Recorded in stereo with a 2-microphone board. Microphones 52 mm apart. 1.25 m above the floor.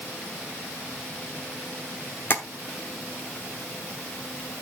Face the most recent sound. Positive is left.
turn(degrees=40)  # may be behind; listen again after turning